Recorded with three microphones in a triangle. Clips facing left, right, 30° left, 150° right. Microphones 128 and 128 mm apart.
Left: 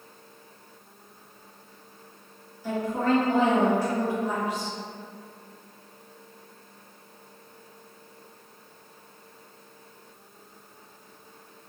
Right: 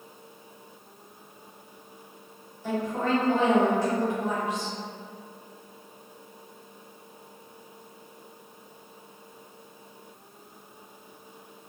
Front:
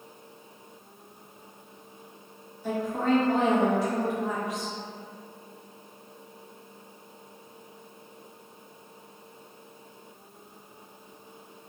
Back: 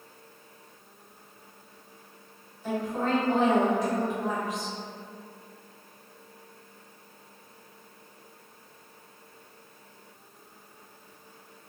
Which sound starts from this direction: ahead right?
A woman speaking, at 2.6 s.